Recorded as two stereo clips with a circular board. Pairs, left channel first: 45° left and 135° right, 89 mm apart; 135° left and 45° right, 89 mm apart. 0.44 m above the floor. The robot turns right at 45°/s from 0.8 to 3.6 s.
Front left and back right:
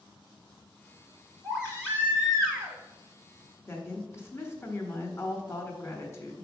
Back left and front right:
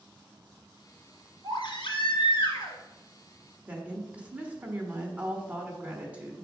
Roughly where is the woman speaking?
Ahead.